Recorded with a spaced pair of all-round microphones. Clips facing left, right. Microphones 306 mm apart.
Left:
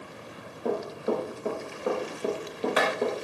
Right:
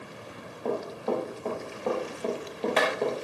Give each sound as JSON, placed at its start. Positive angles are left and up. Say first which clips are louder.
{"t": 0.7, "sound": "running footsteps", "louder": "left 1 dB", "side_deg": 15, "distance_m": 7.0}